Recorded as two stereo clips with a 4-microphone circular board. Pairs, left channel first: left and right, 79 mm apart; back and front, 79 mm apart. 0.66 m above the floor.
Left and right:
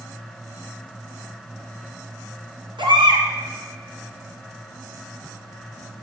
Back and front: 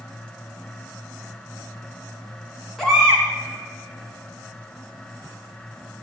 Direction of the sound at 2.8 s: 95° right.